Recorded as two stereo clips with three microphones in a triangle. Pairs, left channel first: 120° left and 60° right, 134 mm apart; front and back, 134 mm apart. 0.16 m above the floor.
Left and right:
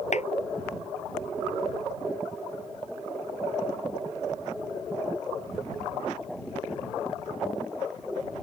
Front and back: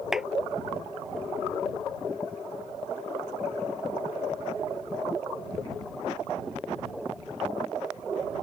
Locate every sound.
0.1 s a clap: 95° left